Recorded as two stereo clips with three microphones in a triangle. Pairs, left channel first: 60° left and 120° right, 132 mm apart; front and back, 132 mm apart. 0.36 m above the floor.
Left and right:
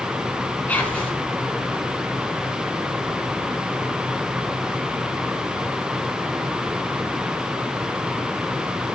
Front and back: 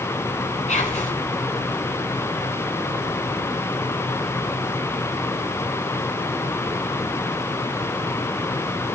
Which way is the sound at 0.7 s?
20° right.